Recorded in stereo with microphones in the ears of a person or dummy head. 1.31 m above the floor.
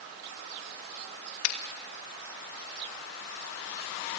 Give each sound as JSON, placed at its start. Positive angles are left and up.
{"t": 1.4, "sound": "a finger snap", "side_deg": 85, "distance_m": 2.5}